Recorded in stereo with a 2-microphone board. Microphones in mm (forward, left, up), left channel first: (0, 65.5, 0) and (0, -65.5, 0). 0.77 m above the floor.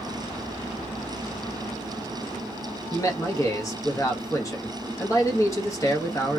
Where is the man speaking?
25° left (ahead or behind), 1.0 m.